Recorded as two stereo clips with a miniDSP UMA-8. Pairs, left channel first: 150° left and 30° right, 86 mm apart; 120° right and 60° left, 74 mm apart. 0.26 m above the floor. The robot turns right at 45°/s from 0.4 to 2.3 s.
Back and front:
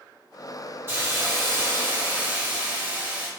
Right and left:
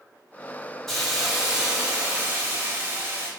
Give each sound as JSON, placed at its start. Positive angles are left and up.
{"t": 0.9, "sound": "a hiss", "azimuth_deg": -40, "distance_m": 1.5}